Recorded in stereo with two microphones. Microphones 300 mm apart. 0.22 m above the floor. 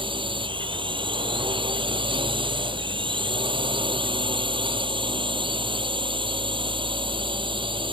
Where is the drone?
15° right (ahead or behind).